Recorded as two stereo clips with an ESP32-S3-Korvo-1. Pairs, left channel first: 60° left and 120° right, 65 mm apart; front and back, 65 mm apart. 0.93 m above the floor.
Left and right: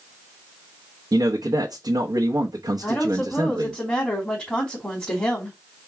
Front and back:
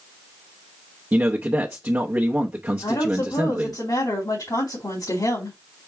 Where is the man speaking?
120° right, 0.7 m.